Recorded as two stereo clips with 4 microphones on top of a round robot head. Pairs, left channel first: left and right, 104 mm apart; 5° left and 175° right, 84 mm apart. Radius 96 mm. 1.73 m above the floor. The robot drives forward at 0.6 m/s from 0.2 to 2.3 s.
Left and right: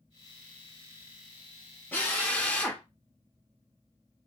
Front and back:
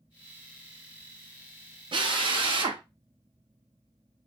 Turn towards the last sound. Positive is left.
turn(degrees=170)